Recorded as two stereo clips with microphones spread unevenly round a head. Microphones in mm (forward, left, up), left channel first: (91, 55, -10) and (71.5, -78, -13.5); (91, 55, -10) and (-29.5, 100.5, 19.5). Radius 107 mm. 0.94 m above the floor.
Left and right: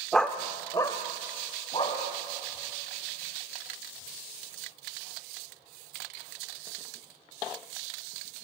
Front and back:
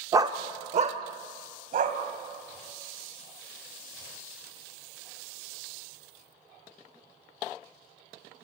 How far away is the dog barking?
About 0.5 m.